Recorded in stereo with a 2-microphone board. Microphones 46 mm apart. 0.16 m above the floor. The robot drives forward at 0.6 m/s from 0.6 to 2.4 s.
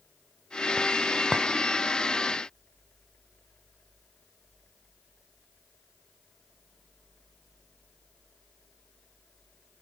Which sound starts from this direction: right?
A clink, at 1.3 s.